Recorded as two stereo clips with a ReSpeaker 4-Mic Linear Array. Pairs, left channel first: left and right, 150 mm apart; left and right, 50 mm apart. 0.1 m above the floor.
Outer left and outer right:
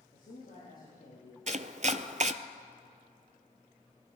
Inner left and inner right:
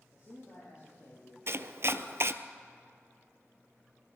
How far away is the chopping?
About 0.6 m.